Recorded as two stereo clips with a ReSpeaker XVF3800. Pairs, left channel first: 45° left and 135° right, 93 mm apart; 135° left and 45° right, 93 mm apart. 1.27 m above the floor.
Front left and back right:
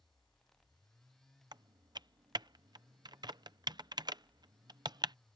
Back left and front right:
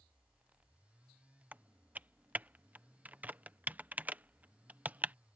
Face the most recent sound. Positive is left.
turn(degrees=-115)